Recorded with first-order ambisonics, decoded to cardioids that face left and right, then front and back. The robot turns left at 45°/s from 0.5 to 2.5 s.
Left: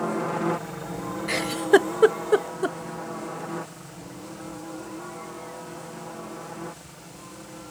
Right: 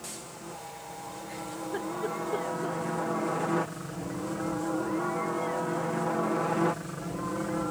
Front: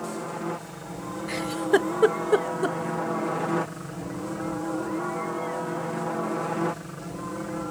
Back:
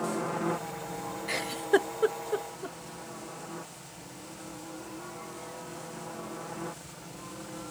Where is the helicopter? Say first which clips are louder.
Left 16 dB, back 1 dB; 95° left; by 7.7 s 50° right.